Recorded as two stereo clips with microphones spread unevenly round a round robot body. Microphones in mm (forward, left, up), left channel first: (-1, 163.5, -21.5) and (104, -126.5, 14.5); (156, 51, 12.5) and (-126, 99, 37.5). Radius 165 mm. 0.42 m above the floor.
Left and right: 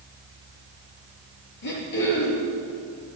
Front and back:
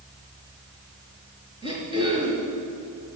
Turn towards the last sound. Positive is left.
turn(degrees=95)